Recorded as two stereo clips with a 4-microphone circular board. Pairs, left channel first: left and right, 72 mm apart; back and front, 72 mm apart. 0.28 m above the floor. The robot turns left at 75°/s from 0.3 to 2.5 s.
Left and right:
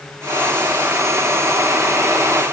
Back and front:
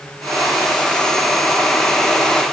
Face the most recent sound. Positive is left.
No sound to turn to.